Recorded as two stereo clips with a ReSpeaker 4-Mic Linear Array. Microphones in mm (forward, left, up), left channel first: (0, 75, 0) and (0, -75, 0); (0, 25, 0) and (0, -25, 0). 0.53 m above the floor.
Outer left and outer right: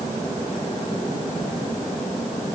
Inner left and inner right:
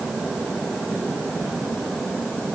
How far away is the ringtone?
I don't hear a ringtone.